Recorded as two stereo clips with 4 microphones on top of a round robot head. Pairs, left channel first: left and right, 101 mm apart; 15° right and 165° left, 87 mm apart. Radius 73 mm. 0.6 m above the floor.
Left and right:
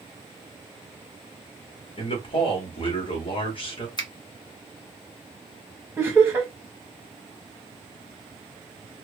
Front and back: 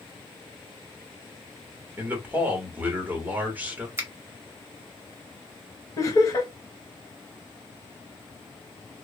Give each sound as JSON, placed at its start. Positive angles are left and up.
{"t": 2.0, "sound": "a man speaking", "azimuth_deg": 100, "distance_m": 1.3}
{"t": 4.0, "sound": "a finger snap", "azimuth_deg": 115, "distance_m": 1.4}
{"t": 6.0, "sound": "laughter", "azimuth_deg": -35, "distance_m": 1.2}